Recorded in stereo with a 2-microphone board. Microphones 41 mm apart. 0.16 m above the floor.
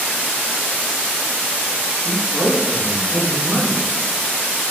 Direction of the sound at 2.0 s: 35° left (ahead or behind).